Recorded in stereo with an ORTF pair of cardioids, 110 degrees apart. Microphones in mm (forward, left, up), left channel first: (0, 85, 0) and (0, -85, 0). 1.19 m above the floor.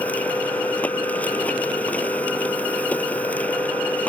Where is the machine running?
10° left.